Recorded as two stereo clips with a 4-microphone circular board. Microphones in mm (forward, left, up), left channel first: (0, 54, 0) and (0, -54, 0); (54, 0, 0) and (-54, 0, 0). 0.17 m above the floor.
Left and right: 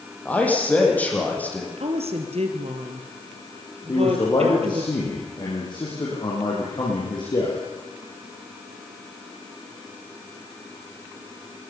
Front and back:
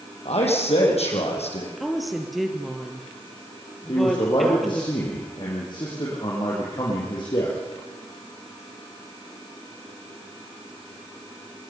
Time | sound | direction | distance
0.2 | a man speaking | 15° left | 5.5 m
1.8 | a woman speaking | 90° right | 3.5 m
3.9 | a man speaking | 45° left | 6.5 m